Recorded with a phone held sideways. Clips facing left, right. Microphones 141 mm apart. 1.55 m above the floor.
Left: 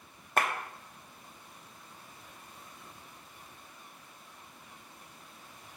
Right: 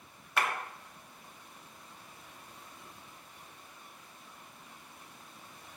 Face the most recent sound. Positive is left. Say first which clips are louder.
# left 2 dB
turn(degrees=45)  # may be behind; listen again after turning